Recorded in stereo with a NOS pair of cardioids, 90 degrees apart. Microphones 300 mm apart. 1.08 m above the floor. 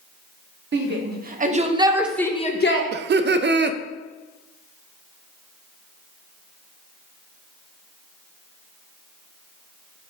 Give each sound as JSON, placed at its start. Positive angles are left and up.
{"t": 0.7, "sound": "a shout", "azimuth_deg": -40, "distance_m": 1.8}
{"t": 2.9, "sound": "laughter", "azimuth_deg": -35, "distance_m": 0.5}